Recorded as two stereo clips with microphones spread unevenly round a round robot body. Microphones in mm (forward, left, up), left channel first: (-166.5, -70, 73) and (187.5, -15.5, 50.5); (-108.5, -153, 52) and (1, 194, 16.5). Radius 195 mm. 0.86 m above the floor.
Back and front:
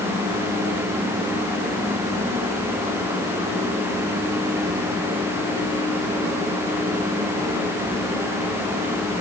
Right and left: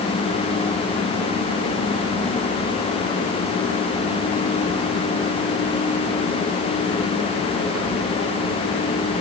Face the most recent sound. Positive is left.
No sound to turn to.